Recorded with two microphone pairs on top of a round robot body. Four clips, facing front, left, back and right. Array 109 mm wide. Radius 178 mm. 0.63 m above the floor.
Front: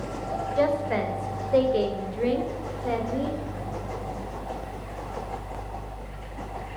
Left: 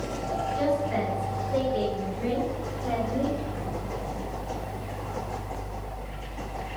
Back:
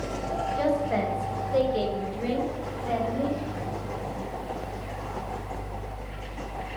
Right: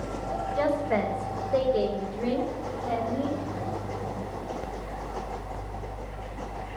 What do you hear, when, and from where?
0.6 s a woman speaking: 45° right, 4 m; by 3.4 s 10° left, 3.5 m